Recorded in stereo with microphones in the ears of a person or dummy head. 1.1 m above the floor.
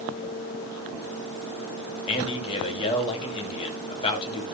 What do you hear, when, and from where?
2.1 s a man speaking: 30° left (ahead or behind), 2.5 m